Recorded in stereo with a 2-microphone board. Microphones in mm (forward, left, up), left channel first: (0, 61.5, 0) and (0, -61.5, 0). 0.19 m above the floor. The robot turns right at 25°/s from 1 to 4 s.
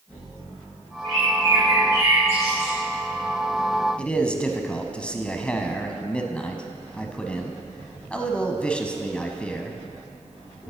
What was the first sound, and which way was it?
A bird, 55° right.